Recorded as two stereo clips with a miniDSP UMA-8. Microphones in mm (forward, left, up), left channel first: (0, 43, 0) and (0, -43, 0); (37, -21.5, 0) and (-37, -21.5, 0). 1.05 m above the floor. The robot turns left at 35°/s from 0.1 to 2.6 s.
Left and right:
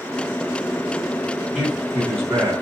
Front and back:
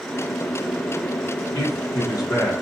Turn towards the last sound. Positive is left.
turn(degrees=-45)